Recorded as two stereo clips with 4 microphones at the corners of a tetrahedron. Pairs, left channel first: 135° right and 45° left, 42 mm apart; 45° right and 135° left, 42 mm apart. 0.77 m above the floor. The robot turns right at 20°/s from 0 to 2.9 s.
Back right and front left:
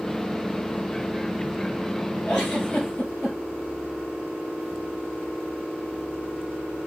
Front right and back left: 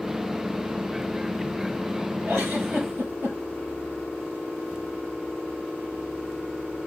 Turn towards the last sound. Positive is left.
turn(degrees=170)